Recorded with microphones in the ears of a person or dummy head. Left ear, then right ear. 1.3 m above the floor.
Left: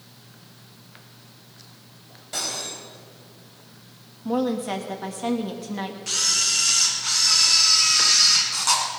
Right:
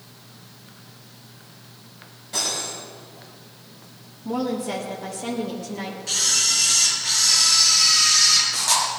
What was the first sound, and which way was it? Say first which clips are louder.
Cutlery clinking: right 3 dB; 35° left (ahead or behind).